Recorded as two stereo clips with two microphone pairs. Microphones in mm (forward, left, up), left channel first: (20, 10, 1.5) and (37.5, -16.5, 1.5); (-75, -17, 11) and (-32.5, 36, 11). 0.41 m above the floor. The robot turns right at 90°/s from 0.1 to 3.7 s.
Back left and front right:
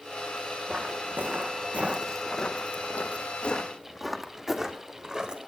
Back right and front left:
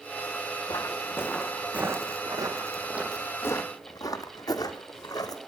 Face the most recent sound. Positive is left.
turn(degrees=-115)